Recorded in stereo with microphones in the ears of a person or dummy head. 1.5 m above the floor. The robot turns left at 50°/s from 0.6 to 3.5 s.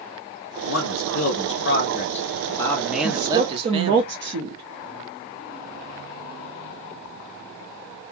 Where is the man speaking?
110° left, 0.7 m; by 4.0 s 30° right, 0.7 m.